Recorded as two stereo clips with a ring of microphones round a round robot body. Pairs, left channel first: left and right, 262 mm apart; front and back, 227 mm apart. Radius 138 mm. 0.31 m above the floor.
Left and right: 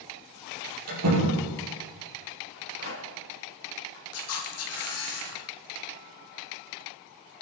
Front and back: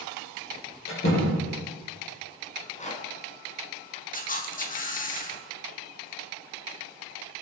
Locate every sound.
0.9 s a door slam: 55° right, 7 m
2.5 s a rattle: 60° left, 4 m
4.1 s a camera shutter: 55° left, 2.5 m